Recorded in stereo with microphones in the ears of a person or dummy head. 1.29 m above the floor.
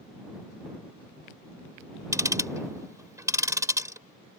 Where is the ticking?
10° right (ahead or behind).